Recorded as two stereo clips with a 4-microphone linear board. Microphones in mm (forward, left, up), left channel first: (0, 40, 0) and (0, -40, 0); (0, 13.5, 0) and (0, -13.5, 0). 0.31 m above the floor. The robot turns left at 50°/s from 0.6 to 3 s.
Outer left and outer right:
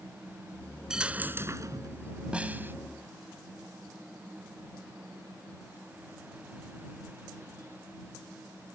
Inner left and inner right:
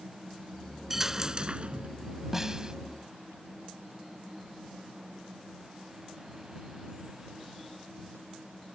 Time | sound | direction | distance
0.9 | a dropped coin | 10° right | ?
2.3 | a snare drum | 15° right (ahead or behind) | ?